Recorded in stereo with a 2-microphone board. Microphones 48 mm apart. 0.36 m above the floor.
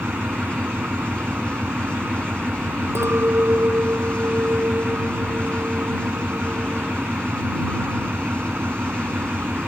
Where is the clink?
60° right (ahead or behind).